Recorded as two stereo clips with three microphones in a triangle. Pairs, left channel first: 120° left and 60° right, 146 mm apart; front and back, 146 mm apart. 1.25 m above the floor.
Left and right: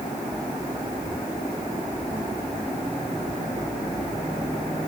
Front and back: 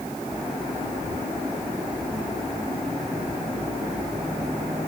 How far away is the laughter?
No laughter in this recording.